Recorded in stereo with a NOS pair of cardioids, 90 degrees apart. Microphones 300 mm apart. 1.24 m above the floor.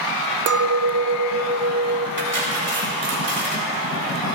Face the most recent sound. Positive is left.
turn(degrees=-35)